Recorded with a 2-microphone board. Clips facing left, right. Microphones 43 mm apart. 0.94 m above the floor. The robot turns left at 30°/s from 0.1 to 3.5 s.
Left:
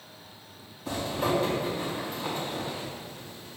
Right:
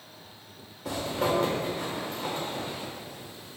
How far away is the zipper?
About 1.7 m.